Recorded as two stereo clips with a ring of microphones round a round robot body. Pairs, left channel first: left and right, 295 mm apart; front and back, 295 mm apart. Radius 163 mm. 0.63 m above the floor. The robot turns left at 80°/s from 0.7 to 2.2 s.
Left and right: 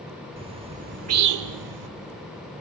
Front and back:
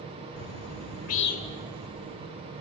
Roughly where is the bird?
Ahead.